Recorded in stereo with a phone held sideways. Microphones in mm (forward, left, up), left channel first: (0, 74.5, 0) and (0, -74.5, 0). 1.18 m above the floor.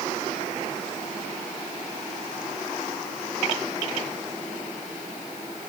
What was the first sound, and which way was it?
Only background noise.